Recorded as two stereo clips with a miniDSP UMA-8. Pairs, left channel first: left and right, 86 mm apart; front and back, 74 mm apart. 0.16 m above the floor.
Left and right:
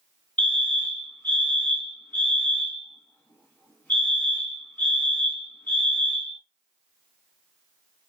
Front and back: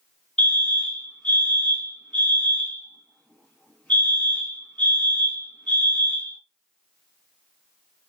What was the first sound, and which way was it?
A fire alarm, 55° left.